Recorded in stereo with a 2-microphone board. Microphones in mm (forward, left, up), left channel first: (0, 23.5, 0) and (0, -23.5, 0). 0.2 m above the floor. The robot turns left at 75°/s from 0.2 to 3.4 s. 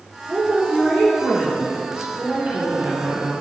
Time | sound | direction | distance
0.3 | a woman speaking | 150° right | 3 m
2.2 | a woman speaking | 20° right | 3 m